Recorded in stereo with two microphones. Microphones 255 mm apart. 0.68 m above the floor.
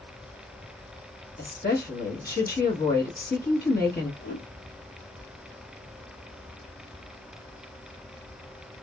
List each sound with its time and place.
1.4 s a woman speaking: 40° left (ahead or behind), 1.2 m
4.2 s a whoosh: 70° left (ahead or behind), 1.9 m